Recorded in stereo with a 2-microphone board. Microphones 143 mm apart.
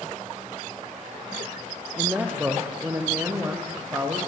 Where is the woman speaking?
10° right (ahead or behind), 4.5 m; by 4.2 s 15° right (ahead or behind), 7 m.